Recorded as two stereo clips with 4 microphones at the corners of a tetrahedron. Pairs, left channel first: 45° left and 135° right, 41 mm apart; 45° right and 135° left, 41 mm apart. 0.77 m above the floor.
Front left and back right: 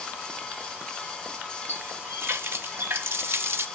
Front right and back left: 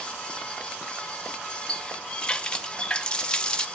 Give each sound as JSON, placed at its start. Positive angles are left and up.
{"t": 1.7, "sound": "a running tap", "azimuth_deg": -110, "distance_m": 0.7}